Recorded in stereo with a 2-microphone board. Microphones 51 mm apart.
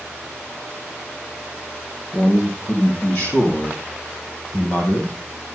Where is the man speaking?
55° left (ahead or behind), 5 m; by 5.1 s 35° left (ahead or behind), 7 m.